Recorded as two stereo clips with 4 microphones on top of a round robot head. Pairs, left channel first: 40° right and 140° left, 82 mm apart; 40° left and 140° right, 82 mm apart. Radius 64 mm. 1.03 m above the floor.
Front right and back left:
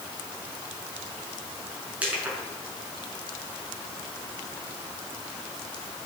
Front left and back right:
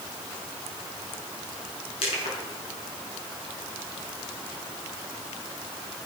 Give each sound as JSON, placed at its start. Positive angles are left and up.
{"t": 2.0, "sound": "crushing", "azimuth_deg": 60, "distance_m": 6.0}